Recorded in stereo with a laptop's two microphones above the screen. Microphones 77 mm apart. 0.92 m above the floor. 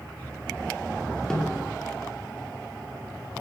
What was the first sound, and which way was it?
A snare drum, 5° left (ahead or behind).